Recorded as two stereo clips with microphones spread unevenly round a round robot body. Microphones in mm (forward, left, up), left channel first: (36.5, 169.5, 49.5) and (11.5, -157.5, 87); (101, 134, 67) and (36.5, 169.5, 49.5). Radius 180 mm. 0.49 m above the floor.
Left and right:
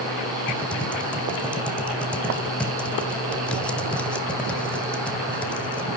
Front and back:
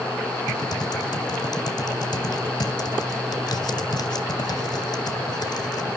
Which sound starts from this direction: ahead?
Typing on a keyboard, at 0.5 s.